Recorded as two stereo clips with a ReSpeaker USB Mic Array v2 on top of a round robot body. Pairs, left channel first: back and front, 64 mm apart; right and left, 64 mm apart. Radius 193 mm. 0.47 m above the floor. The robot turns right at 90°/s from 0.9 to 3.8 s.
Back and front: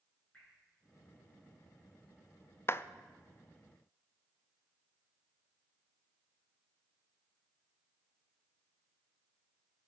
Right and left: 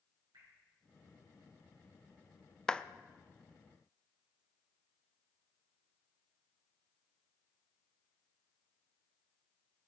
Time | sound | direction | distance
0.3 | dripping | 105° left | 8 m
2.7 | a clap | 165° right | 0.7 m